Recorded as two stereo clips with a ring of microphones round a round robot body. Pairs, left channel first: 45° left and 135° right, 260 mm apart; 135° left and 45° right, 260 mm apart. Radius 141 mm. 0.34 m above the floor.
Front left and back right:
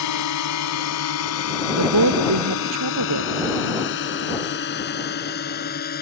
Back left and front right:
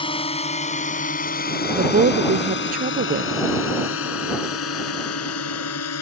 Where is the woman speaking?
105° right.